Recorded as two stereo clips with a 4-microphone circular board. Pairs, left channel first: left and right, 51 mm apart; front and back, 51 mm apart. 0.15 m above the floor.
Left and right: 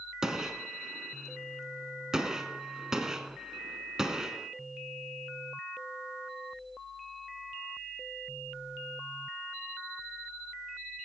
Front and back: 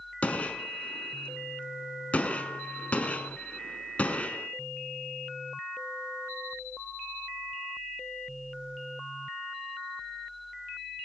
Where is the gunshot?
25° right, 1.0 m.